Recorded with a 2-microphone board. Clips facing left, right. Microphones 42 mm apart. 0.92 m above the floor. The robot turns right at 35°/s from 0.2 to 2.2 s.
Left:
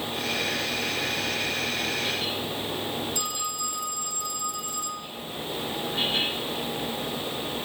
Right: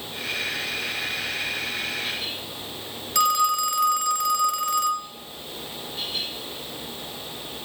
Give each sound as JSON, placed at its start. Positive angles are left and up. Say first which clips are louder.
{"t": 3.1, "sound": "a phone ringing", "louder": "right 12 dB", "side_deg": -80, "distance_m": 1.2}